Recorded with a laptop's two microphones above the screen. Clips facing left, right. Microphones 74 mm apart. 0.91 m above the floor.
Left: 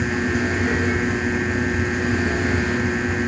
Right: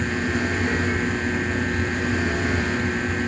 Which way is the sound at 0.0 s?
10° left (ahead or behind).